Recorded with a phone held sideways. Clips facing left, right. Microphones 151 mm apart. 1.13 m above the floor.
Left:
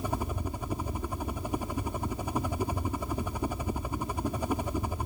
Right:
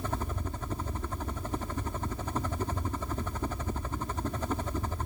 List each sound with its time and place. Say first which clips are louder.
0.0 s a helicopter: left 2 dB; 10° left (ahead or behind)